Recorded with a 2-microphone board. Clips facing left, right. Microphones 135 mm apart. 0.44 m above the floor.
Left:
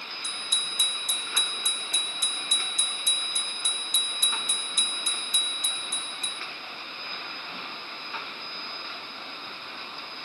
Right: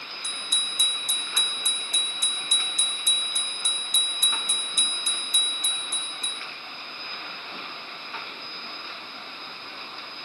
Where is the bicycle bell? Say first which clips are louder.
Even; 35° right (ahead or behind), 2.5 m.